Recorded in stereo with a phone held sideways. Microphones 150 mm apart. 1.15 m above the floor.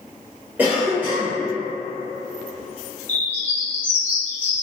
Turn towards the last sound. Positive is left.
turn(degrees=15)  # may be behind; listen again after turning